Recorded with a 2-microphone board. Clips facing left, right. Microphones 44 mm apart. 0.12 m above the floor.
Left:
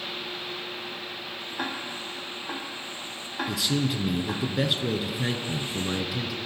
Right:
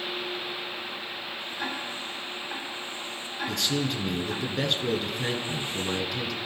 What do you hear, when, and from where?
1.6 s ticking: 55° left (ahead or behind), 3 m
3.5 s a man speaking: 5° left (ahead or behind), 1.4 m